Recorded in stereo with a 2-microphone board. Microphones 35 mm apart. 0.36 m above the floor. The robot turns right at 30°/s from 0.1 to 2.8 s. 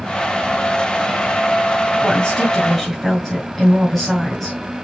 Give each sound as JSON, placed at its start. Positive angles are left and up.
{"t": 2.0, "sound": "a woman speaking", "side_deg": 25, "distance_m": 3.0}